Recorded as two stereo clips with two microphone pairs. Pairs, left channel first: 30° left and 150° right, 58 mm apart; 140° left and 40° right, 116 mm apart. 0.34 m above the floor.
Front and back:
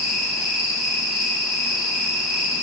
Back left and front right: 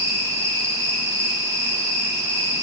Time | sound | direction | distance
0.0 | an insect | 75° right | 1.6 m